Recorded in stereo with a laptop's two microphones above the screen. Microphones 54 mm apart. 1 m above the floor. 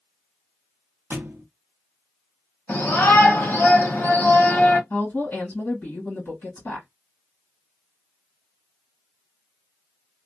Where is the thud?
45° right (ahead or behind), 0.6 m.